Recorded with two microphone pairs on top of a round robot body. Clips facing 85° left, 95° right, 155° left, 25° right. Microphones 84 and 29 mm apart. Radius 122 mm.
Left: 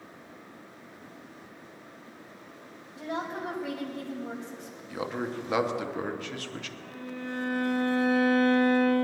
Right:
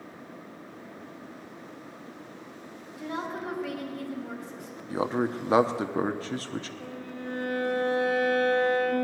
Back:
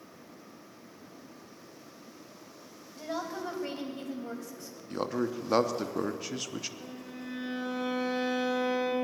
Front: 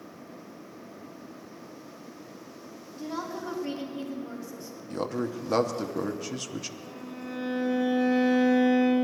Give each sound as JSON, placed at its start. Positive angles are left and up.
{"t": 3.0, "sound": "a woman speaking", "azimuth_deg": 150, "distance_m": 3.5}
{"t": 4.9, "sound": "a man speaking", "azimuth_deg": -120, "distance_m": 0.9}
{"t": 6.8, "sound": "a violin", "azimuth_deg": -160, "distance_m": 5.5}